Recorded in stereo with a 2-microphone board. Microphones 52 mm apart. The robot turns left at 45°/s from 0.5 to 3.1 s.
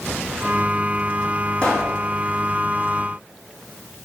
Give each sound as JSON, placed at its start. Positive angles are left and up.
{"t": 1.6, "sound": "a pop", "side_deg": 20, "distance_m": 3.0}